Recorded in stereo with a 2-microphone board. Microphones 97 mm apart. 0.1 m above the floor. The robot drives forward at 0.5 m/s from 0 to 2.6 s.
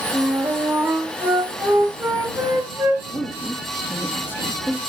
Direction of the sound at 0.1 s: 30° right (ahead or behind).